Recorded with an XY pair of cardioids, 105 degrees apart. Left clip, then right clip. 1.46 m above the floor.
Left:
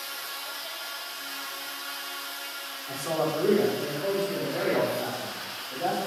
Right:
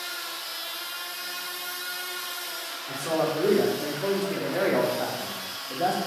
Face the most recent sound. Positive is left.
turn(degrees=-70)